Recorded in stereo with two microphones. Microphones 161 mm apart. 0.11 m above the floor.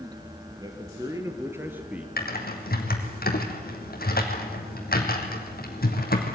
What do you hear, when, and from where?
0.6 s a man speaking: 25° right (ahead or behind), 3 m; by 2.1 s 5° right (ahead or behind), 1.6 m
2.2 s typing on a keyboard: 70° left (ahead or behind), 2 m